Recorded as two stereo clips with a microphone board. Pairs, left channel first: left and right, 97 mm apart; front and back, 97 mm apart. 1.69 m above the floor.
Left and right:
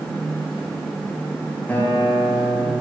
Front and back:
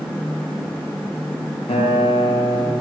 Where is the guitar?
20° left, 0.9 m.